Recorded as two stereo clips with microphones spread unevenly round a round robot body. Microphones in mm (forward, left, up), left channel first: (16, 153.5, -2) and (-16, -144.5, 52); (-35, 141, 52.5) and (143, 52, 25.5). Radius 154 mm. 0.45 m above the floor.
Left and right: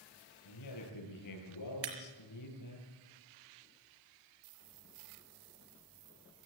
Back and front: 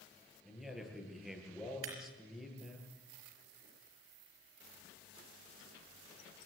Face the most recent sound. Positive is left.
turn(degrees=-55)